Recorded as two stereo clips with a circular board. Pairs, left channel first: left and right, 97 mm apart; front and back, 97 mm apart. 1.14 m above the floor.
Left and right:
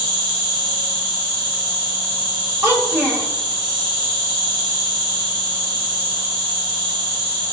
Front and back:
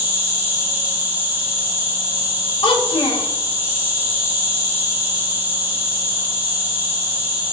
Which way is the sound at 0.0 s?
115° right.